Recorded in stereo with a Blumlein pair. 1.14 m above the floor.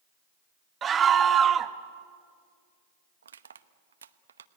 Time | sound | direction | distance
0.8 | a scream | 20° right | 1.3 m
3.2 | crushing | 70° right | 0.8 m